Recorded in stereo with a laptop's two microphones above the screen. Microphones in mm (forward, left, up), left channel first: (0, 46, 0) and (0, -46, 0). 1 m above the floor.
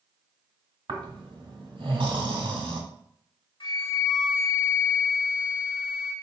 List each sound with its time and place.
0.9 s snoring: 65° right (ahead or behind), 1.3 m
3.6 s a flute: 60° left (ahead or behind), 1.1 m